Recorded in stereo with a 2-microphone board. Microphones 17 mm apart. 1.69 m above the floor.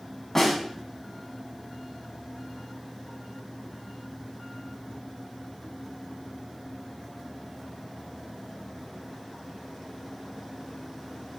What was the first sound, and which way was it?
A snare drum, 15° left (ahead or behind).